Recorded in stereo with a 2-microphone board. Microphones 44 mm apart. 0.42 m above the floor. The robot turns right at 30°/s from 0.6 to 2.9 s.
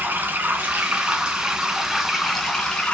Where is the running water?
45° right, 2.5 m; by 3.0 s 25° left, 2.5 m.